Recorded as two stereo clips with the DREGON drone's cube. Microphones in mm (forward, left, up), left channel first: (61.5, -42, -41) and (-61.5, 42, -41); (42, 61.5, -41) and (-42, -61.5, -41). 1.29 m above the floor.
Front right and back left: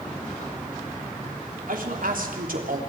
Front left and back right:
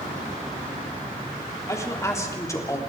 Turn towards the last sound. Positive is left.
turn(degrees=125)